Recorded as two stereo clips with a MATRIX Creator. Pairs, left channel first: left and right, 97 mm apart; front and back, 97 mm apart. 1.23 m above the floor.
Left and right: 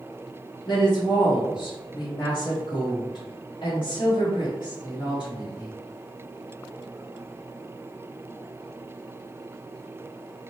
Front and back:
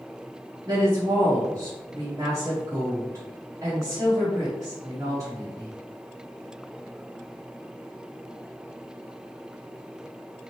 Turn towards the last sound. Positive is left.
turn(degrees=125)